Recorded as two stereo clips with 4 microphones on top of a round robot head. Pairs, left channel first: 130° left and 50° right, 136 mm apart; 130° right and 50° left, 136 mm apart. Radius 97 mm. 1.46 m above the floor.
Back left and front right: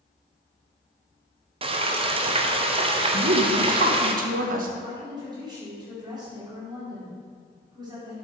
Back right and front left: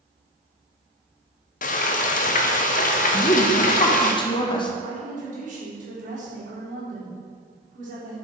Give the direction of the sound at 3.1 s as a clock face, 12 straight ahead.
2 o'clock.